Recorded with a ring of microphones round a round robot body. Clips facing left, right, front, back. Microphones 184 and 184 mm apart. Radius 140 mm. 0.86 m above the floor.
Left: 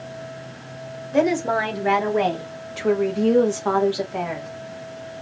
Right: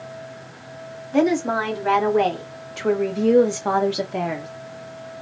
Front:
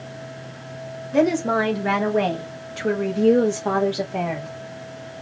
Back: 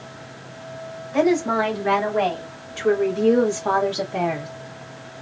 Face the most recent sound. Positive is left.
turn(degrees=-100)